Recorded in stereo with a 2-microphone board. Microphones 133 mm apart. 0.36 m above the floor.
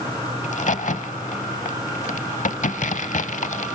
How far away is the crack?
About 0.8 m.